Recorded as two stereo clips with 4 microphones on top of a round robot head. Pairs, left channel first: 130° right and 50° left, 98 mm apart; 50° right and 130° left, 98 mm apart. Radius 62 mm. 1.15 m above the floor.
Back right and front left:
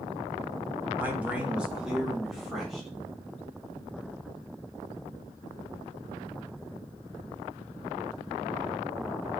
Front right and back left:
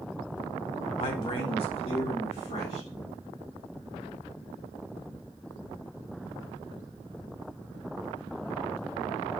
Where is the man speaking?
20° right, 2 m; by 2.9 s 40° right, 4 m.